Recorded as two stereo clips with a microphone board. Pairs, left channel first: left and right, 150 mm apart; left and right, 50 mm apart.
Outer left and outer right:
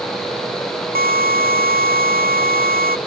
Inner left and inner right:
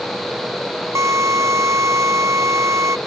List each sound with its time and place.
0.9 s a drill: 80° right